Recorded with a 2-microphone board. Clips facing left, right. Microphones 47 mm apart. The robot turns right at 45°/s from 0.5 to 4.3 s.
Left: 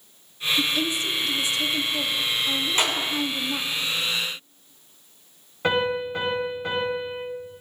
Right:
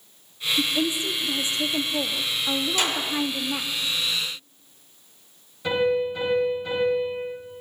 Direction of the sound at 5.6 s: 55° left (ahead or behind).